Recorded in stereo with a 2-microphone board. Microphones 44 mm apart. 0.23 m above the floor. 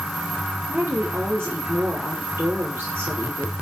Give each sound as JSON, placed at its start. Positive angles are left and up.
{"t": 0.7, "sound": "a woman speaking", "side_deg": -60, "distance_m": 5.5}